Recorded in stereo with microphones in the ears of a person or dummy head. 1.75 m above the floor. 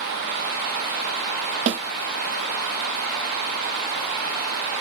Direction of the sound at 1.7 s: 35° right (ahead or behind).